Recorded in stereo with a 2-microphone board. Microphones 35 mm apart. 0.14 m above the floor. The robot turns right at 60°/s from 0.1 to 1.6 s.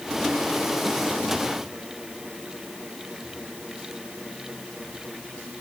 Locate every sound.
Only background noise.